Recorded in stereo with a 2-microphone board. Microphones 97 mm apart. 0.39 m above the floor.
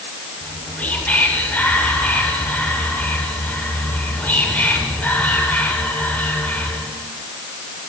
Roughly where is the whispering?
Centre.